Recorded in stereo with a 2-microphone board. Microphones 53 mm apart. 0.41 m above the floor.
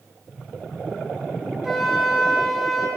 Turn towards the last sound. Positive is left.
turn(degrees=-10)  # may be behind; listen again after turning